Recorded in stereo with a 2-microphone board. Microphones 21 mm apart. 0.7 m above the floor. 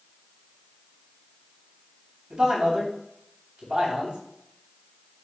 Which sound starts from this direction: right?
A man speaking, at 2.3 s.